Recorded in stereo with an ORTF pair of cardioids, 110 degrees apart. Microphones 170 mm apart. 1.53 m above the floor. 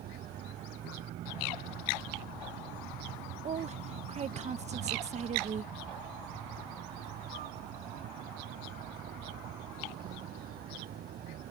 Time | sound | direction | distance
0.0 | a vehicle | 65° right | ?
3.4 | a woman speaking | 40° right | ?